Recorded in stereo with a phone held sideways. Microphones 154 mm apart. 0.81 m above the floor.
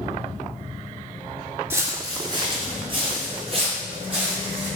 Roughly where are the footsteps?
Centre.